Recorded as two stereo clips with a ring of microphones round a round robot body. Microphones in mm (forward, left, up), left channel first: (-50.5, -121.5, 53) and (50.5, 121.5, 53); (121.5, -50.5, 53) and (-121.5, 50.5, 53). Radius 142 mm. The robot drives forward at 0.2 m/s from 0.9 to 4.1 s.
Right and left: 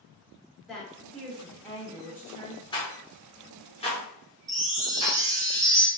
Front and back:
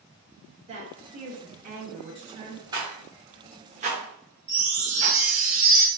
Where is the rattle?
155° right, 1.1 m; by 5.2 s 165° right, 1.2 m.